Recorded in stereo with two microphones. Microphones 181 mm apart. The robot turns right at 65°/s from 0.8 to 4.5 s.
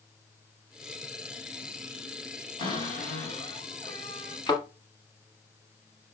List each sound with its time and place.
2.6 s a cupboard door: 45° left, 2.0 m; by 4.4 s 160° left, 2.0 m
4.5 s a thud: 30° left (ahead or behind), 1.2 m; by 4.6 s 25° left (ahead or behind), 1.2 m